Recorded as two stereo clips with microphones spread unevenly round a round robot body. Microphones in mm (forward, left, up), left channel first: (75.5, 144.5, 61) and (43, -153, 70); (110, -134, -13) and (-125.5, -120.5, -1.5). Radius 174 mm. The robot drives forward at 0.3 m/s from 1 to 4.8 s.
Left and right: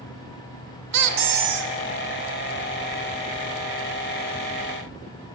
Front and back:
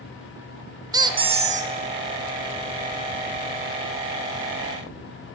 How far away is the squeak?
About 0.6 m.